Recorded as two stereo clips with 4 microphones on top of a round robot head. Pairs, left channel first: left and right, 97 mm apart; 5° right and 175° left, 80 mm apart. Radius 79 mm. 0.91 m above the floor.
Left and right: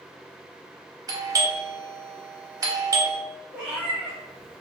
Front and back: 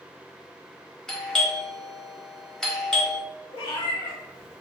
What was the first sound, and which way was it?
A doorbell, 80° right.